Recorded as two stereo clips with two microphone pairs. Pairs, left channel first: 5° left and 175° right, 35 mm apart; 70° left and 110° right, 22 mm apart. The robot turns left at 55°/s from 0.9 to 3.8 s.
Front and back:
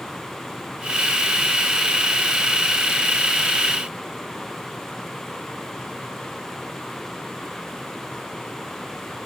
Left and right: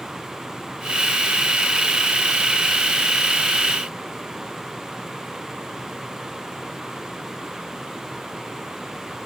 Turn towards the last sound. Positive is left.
No sound to turn to.